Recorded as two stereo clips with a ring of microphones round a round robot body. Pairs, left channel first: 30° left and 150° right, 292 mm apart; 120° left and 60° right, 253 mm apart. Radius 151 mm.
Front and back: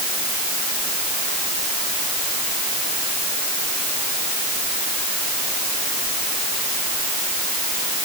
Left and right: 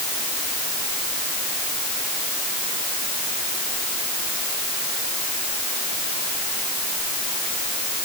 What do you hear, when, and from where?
Only background noise.